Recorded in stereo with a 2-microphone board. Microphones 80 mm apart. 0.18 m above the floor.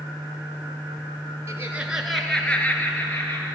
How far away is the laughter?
About 2.0 m.